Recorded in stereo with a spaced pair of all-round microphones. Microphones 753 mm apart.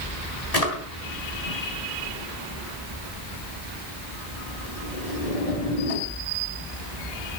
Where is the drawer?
55° left (ahead or behind), 3.5 m.